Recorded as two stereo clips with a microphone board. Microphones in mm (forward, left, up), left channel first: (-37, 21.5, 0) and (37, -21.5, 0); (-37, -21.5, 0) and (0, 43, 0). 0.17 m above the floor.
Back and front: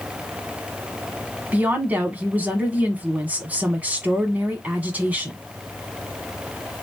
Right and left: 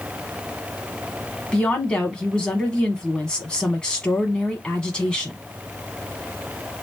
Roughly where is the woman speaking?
Ahead right.